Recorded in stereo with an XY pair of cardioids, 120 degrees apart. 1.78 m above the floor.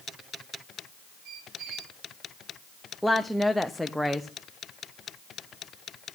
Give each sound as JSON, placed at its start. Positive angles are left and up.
{"t": 1.2, "sound": "a squeak", "azimuth_deg": -65, "distance_m": 3.5}
{"t": 3.0, "sound": "a woman speaking", "azimuth_deg": 0, "distance_m": 0.9}